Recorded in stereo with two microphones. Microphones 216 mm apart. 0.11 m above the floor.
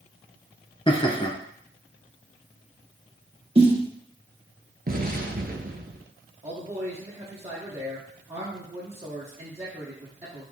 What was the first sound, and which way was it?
Laughter, 25° left (ahead or behind).